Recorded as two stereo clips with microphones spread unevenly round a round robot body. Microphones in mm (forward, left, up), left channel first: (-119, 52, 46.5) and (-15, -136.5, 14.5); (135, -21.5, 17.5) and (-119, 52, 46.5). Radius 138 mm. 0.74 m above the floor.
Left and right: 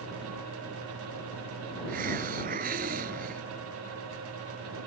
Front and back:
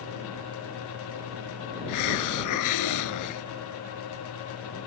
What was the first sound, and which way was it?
A hiss, straight ahead.